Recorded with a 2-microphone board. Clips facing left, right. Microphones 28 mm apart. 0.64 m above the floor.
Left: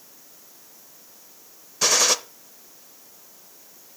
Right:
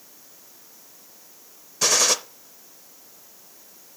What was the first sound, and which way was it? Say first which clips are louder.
A gunshot: even; 5° left (ahead or behind).